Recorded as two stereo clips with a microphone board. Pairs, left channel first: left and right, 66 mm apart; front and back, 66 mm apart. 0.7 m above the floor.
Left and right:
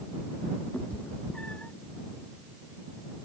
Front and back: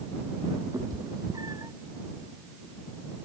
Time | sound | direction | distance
0.7 | a cat meowing | 160° left | ?